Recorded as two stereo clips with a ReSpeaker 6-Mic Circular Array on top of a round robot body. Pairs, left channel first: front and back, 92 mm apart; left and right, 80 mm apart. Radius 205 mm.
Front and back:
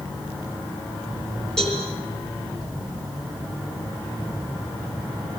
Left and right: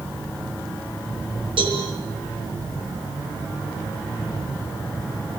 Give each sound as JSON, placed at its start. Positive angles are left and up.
{"t": 1.6, "sound": "a cowbell", "azimuth_deg": -85, "distance_m": 8.5}